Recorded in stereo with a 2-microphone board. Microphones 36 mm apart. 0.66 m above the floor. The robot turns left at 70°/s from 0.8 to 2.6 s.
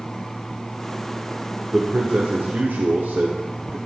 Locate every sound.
1.7 s a man speaking: 35° right, 1.4 m; by 3.8 s 95° right, 1.4 m